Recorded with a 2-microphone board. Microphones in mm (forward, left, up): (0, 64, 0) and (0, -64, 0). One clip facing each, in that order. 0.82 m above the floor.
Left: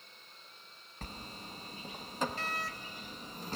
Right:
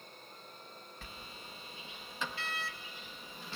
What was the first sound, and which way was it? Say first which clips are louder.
A sliding door: left 8 dB; 40° left (ahead or behind).